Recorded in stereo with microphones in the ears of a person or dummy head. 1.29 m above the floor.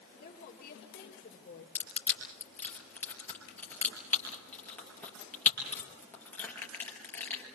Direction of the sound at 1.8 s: 10° left (ahead or behind).